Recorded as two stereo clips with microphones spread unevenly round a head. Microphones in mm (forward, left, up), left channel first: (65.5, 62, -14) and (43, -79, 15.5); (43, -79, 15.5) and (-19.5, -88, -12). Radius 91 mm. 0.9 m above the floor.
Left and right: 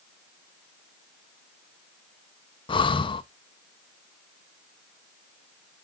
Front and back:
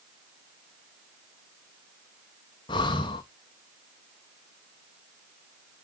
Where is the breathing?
35° left, 0.6 m.